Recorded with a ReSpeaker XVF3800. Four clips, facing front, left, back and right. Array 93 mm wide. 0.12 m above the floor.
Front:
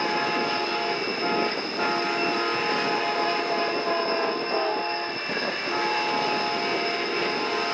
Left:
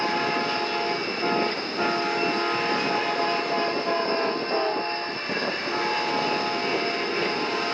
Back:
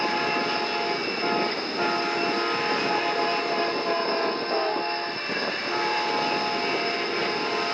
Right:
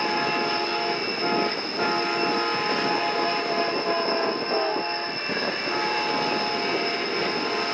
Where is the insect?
150° right.